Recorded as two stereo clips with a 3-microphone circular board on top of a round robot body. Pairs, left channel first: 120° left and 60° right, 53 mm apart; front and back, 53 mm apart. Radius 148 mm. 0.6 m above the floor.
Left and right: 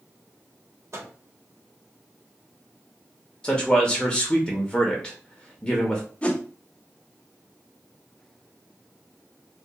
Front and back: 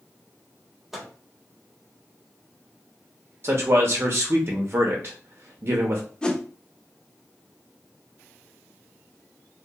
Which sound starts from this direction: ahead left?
A whoosh, at 6.2 s.